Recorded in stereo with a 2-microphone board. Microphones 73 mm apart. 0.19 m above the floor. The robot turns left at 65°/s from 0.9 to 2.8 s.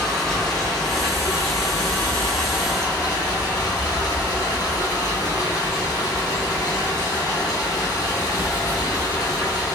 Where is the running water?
175° left, 2.5 m; by 9.8 s 50° left, 2.5 m.